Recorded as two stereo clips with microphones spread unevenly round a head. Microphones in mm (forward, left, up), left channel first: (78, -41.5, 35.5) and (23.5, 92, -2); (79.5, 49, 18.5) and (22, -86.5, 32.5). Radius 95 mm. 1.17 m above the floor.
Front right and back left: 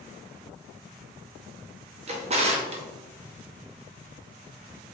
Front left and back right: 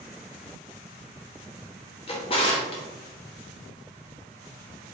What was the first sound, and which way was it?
A drawer, 85° left.